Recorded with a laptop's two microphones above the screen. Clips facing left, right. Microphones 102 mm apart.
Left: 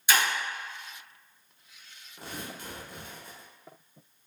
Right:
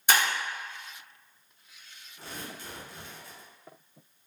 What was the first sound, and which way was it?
Breaking glass, 55° right (ahead or behind).